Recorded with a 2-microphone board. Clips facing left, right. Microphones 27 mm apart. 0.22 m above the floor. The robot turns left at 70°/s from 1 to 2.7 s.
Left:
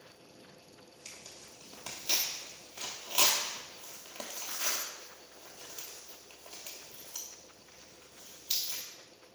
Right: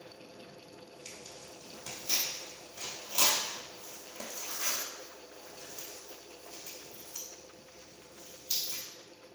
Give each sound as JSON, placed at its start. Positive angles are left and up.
{"t": 1.1, "sound": "tearing paper", "side_deg": -10, "distance_m": 1.0}